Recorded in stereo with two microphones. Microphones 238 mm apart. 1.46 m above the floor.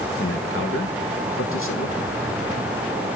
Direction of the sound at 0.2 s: 60° left (ahead or behind).